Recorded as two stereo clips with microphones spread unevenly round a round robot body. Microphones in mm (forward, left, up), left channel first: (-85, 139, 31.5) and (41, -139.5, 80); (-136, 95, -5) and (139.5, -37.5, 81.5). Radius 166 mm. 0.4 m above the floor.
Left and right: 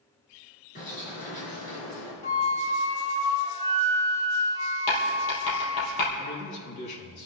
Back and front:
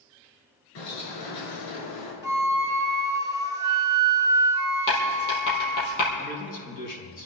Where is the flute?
35° left, 1.5 m.